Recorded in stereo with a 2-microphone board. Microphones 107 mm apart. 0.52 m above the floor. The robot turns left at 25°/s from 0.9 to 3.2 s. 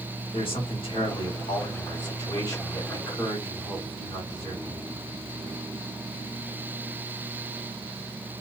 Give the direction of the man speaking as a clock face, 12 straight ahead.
9 o'clock.